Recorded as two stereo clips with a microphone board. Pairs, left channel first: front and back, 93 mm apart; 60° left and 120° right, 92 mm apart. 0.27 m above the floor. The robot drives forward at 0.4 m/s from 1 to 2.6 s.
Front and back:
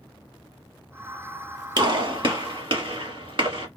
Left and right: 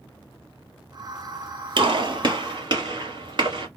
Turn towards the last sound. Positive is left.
turn(degrees=-155)